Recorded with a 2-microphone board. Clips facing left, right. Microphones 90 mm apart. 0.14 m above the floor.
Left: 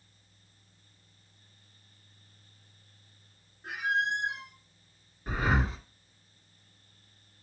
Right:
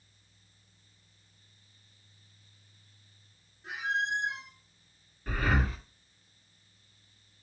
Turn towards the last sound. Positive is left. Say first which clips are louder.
# left 1 dB
turn(degrees=20)  # may be behind; listen again after turning